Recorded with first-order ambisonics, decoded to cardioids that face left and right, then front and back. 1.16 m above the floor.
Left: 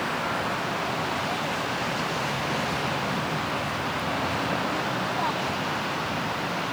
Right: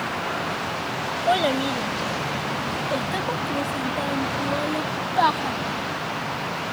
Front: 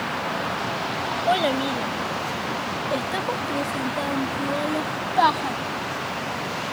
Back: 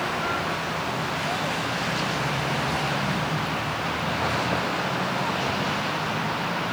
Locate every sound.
1.3 s a child speaking: 50° right; by 5.5 s 35° right